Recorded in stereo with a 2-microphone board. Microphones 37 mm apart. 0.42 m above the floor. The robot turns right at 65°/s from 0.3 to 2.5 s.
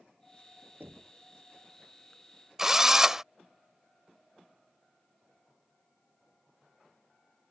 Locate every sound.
0.8 s knocking: 75° right (ahead or behind); by 1.1 s 50° right (ahead or behind)
2.6 s a drill: 10° right (ahead or behind)